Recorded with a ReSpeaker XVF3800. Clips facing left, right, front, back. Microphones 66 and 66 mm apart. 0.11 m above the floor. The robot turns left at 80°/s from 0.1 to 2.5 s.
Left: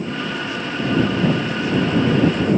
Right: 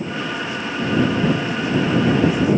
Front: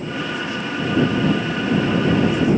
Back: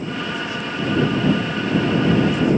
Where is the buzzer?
I don't hear a buzzer.